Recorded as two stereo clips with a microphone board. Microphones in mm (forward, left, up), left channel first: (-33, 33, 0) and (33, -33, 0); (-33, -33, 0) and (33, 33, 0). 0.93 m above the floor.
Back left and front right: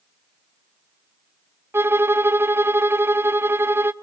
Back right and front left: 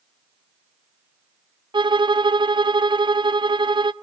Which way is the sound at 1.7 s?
20° left.